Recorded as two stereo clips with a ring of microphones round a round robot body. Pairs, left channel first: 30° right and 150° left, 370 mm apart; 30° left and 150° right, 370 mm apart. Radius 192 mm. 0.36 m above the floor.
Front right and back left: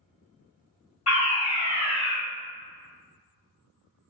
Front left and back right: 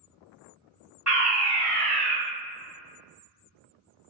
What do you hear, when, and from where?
1.1 s a fire alarm: 60° right, 1.8 m